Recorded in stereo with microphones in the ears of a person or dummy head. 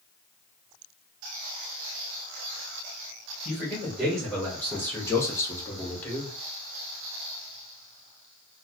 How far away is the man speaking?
About 1.5 m.